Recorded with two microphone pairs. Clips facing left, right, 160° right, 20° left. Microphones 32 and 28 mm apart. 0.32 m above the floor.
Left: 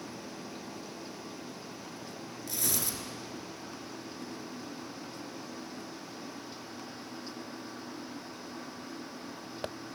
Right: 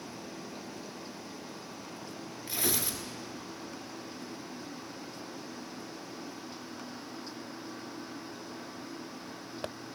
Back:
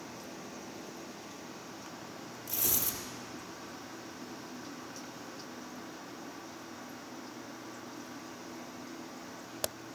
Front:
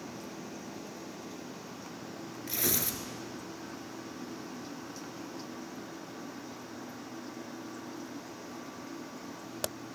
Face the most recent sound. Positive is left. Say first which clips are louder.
# right 2 dB, front 3 dB
turn(degrees=-25)